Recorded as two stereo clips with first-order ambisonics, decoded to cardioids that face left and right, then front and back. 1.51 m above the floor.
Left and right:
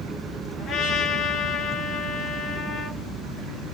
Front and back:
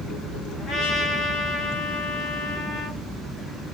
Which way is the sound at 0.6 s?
45° left.